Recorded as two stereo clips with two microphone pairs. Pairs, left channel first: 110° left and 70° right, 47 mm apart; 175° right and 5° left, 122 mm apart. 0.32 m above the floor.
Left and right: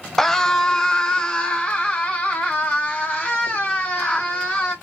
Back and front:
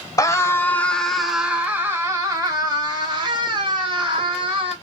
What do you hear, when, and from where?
0.2 s a scream: 175° right, 1.2 m; by 4.7 s 40° left, 2.5 m